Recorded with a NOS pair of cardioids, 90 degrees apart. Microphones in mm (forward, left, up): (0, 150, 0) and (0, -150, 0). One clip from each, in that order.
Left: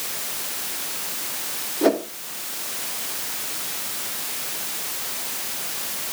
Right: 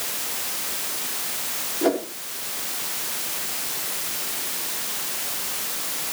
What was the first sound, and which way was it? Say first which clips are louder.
A whoosh: left 3 dB; 35° left.